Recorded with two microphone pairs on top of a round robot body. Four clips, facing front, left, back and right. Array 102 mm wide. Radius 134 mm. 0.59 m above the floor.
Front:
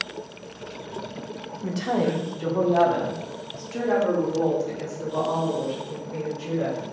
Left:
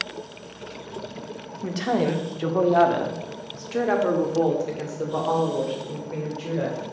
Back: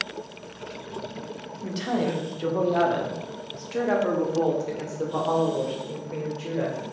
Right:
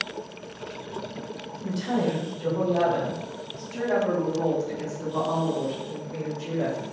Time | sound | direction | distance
1.6 | a woman speaking | 70° left | 2 m